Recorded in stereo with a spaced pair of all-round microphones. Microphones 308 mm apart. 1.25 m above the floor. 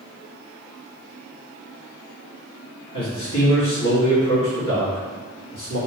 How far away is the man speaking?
About 1.7 m.